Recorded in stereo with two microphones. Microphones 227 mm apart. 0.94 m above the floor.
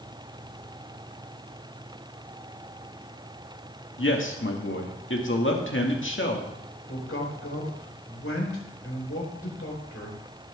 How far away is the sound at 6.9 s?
About 4 m.